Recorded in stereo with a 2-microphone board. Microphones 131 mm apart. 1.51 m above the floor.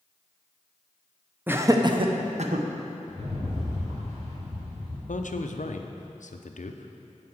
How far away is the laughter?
About 0.8 m.